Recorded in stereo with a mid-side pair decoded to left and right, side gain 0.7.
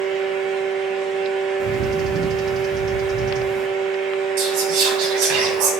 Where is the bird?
45° right, 0.6 m.